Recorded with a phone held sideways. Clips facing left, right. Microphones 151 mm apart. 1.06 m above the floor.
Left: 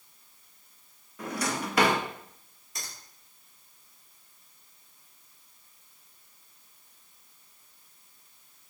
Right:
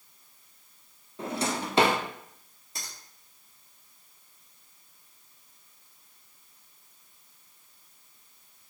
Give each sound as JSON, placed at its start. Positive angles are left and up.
{"t": 1.2, "sound": "a drawer", "side_deg": -30, "distance_m": 0.5}
{"t": 2.8, "sound": "a finger snap", "side_deg": -35, "distance_m": 2.0}